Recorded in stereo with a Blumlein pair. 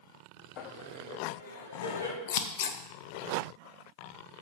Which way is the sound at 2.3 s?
50° left.